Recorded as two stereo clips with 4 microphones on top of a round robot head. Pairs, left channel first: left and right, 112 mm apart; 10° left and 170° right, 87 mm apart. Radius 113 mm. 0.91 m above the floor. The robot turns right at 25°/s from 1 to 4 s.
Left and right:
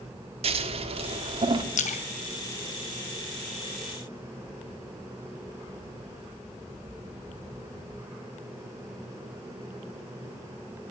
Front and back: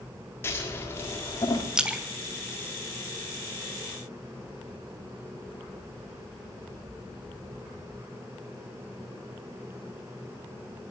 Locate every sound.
0.4 s scissors: 60° right, 1.6 m; by 1.6 s 45° right, 1.6 m
1.8 s a splash: 105° left, 1.3 m; by 3.5 s 150° left, 1.3 m